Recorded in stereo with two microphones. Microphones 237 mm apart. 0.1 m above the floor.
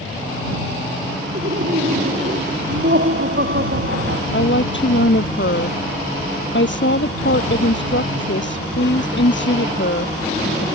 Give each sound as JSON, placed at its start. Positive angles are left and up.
{"t": 1.3, "sound": "laughter", "side_deg": -50}
{"t": 4.3, "sound": "a woman speaking", "side_deg": 55}